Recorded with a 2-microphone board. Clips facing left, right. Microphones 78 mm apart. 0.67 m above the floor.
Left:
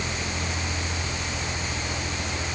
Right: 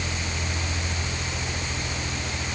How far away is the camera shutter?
No camera shutter in this recording.